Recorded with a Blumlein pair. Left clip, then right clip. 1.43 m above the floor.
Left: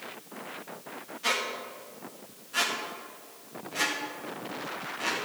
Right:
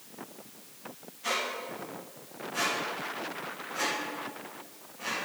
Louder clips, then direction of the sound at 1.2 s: Left 2 dB; 25° left.